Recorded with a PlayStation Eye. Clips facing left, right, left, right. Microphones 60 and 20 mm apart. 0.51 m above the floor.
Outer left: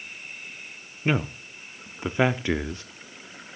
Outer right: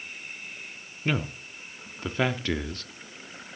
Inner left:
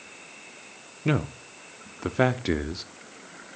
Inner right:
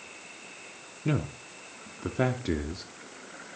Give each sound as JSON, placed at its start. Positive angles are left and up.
{"t": 1.1, "sound": "a man speaking", "side_deg": 15, "distance_m": 0.6}